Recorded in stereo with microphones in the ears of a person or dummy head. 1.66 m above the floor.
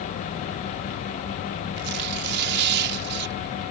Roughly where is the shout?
No shout in this recording.